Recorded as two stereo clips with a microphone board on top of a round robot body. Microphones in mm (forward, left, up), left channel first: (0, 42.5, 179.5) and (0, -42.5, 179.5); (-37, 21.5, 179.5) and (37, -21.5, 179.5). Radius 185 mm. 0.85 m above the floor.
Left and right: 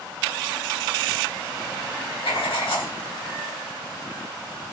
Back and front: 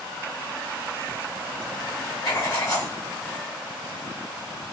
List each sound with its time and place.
2.2 s writing: 100° left, 1.4 m